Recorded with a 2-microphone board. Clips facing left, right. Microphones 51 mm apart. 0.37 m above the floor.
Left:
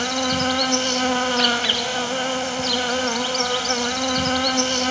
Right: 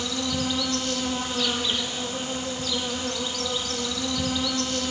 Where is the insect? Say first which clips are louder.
Left 6 dB; 65° left (ahead or behind), 1.3 m.